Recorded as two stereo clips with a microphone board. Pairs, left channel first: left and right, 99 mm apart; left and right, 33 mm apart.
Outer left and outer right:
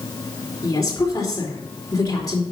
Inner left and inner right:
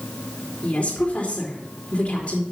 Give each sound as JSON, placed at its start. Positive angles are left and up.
{"t": 0.6, "sound": "a woman speaking", "side_deg": 35, "distance_m": 3.0}